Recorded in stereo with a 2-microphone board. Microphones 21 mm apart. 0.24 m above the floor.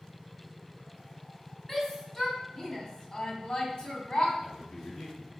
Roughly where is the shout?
Centre.